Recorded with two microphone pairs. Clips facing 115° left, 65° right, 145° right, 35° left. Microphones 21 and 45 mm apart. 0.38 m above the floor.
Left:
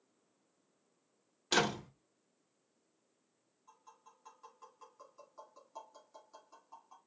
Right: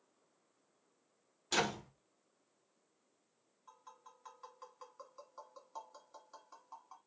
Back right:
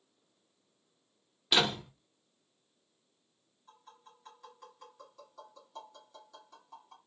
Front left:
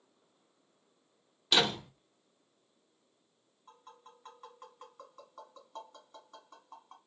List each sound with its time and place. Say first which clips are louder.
1.5 s a door slam: left 3 dB, even; 140° left, 1.0 m
3.7 s tapping: right 3 dB, front left 2 dB; 10° right, 1.9 m